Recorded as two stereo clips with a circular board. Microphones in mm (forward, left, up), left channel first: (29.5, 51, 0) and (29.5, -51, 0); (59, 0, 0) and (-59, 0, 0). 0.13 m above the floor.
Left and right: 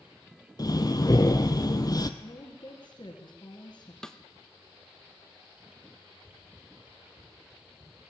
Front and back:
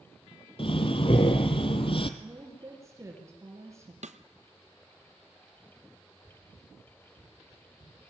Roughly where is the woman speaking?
Behind left.